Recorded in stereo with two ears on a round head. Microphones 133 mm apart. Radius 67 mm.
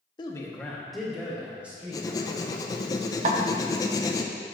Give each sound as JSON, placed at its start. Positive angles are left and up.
{"t": 0.2, "sound": "a man speaking", "side_deg": 30, "distance_m": 0.8}
{"t": 1.9, "sound": "writing", "side_deg": 25, "distance_m": 0.6}
{"t": 3.2, "sound": "a snare drum", "side_deg": -55, "distance_m": 0.8}